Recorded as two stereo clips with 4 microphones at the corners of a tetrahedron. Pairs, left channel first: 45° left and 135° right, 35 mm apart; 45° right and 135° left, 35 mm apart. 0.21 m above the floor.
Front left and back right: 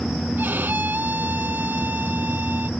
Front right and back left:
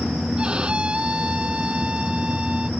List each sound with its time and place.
0.4 s a violin: 160° right